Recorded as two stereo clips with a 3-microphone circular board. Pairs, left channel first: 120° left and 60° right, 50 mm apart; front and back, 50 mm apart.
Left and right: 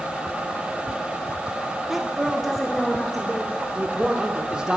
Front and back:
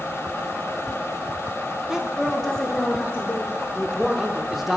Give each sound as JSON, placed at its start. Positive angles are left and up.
{"t": 1.9, "sound": "a woman speaking", "azimuth_deg": -135, "distance_m": 0.8}
{"t": 3.8, "sound": "a man speaking", "azimuth_deg": -110, "distance_m": 0.7}